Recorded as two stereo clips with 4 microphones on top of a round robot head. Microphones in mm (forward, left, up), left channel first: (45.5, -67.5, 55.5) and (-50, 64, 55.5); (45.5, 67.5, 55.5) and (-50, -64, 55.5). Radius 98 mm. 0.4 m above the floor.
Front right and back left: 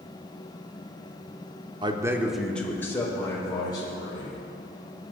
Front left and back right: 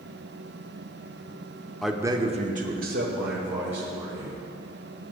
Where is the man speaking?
140° left, 0.8 m; by 4.4 s 115° right, 3 m.